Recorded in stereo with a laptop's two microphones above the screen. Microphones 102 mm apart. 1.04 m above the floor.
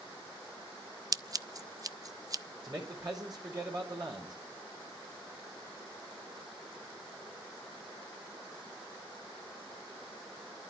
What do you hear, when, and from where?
1.1 s scissors: 35° right (ahead or behind), 0.5 m
2.6 s a man speaking: 45° right (ahead or behind), 4 m